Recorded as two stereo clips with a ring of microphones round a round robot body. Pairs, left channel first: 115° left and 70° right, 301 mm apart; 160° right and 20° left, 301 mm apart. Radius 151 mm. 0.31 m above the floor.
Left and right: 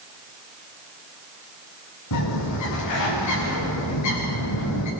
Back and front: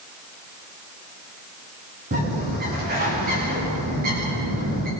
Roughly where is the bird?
Left.